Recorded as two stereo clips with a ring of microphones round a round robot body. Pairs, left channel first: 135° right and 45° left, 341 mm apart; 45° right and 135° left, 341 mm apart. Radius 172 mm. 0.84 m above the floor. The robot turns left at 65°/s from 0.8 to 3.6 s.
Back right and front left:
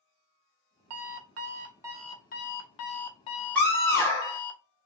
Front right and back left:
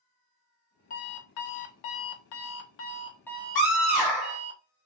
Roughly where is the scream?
Ahead right.